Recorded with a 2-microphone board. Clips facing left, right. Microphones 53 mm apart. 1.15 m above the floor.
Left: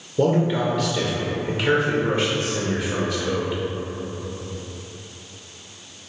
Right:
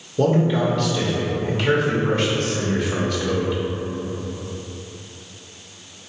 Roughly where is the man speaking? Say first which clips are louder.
Right 1 dB; centre.